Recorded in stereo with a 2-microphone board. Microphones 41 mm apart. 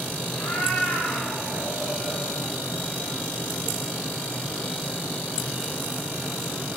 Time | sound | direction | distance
0.3 | a cat meowing | 65° left (ahead or behind) | 8 m